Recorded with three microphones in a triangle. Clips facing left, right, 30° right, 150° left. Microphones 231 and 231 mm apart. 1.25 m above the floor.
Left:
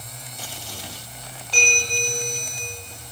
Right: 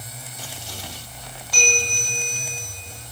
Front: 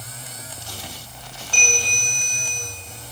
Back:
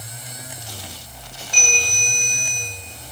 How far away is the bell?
About 5.5 m.